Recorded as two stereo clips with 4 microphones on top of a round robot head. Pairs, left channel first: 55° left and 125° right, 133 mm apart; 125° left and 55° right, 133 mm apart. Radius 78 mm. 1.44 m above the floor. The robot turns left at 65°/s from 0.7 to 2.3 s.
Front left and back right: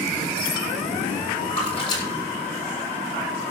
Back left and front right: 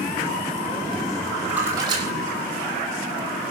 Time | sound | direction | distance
1.5 | a splash | 30° left | 7 m